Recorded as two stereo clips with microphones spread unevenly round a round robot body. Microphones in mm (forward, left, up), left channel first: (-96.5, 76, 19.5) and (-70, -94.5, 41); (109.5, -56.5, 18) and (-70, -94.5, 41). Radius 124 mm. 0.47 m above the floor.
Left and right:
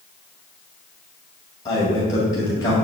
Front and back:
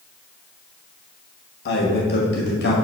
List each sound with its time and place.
1.6 s a man speaking: 30° left, 2 m